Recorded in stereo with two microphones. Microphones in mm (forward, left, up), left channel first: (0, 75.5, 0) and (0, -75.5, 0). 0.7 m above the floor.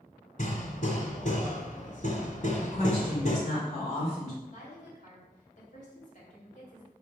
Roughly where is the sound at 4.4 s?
Left.